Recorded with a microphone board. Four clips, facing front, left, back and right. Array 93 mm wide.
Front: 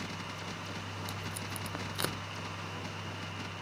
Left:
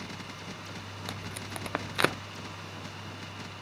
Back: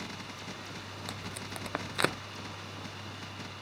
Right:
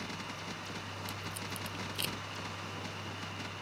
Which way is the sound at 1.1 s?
115° left.